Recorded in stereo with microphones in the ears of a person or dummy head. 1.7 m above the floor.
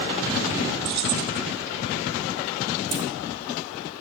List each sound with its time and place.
0.8 s keys jangling: 55° right (ahead or behind), 1.1 m
2.9 s keys jangling: 25° right (ahead or behind), 2.5 m